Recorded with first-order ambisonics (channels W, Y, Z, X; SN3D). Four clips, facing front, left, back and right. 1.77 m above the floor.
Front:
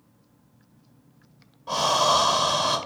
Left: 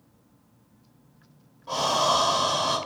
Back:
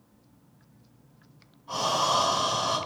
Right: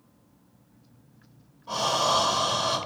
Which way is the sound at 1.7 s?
10° left.